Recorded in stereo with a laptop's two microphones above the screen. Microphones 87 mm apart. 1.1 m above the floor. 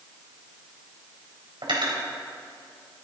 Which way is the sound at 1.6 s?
70° right (ahead or behind).